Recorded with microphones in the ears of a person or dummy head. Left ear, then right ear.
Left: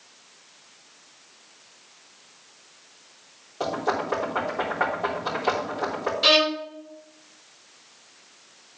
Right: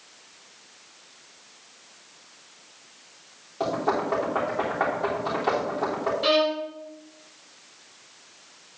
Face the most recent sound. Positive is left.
turn(degrees=25)  # may be behind; listen again after turning